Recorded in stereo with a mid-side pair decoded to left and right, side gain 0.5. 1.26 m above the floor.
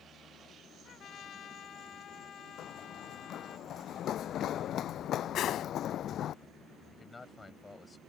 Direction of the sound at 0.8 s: 55° left.